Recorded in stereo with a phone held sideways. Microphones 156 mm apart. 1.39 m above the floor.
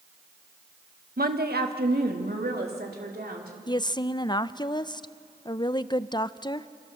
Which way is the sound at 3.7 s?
30° left (ahead or behind).